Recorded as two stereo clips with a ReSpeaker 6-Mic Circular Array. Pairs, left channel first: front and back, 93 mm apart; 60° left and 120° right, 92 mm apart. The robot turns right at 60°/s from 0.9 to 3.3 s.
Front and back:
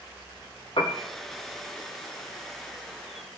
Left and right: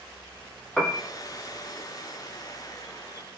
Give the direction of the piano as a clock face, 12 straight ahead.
1 o'clock.